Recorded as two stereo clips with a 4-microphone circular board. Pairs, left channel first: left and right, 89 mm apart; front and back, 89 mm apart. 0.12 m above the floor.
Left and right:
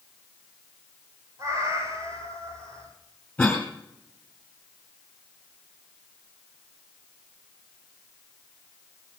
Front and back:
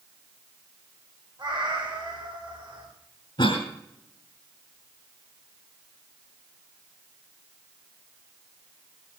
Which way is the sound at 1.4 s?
140° right.